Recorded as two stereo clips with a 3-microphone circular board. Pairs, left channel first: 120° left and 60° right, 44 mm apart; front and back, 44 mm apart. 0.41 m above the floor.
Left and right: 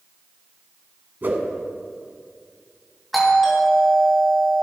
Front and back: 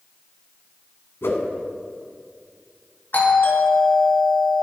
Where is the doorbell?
25° left, 3.5 m.